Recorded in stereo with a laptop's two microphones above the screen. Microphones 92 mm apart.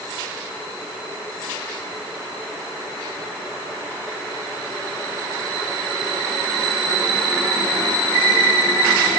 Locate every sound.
Only background noise.